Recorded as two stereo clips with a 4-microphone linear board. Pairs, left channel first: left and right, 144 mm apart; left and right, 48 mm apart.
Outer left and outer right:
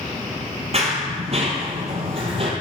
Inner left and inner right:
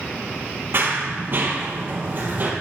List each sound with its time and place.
0.7 s running footsteps: 45° right (ahead or behind), 2.5 m; by 2.5 s 40° right (ahead or behind), 2.5 m